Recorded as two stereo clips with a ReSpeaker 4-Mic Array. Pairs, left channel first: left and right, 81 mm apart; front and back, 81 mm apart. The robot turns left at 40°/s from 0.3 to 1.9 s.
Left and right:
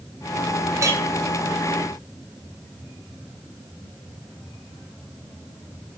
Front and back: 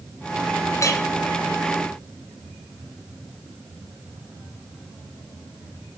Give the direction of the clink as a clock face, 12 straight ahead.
1 o'clock.